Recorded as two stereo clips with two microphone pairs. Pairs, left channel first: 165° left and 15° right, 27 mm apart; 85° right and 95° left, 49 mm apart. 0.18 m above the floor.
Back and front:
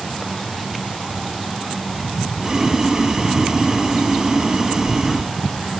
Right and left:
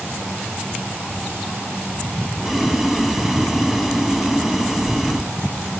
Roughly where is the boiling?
Ahead left.